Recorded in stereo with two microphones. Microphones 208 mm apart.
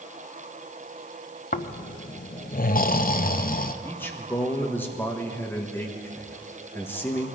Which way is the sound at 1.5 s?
45° left (ahead or behind).